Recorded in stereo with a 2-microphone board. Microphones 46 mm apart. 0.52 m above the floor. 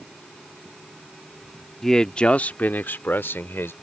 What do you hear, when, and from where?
1.8 s a man speaking: 5° left (ahead or behind); by 3.7 s 65° left (ahead or behind)